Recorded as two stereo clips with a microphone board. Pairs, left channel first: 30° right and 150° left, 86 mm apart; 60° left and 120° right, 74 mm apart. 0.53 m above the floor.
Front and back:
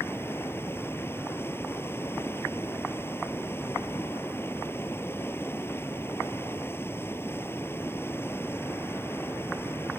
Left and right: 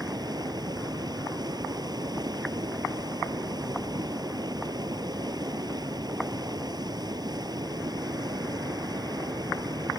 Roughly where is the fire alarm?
I don't hear a fire alarm.